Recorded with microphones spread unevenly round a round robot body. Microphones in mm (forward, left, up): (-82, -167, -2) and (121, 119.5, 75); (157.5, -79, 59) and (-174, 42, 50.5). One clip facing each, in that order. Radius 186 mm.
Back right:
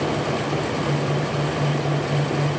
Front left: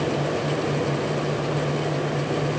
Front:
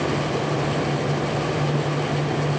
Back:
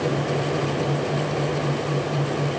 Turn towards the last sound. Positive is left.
No sound to turn to.